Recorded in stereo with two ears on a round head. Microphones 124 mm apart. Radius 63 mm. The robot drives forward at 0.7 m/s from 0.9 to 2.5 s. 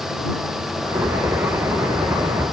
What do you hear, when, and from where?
Only background noise.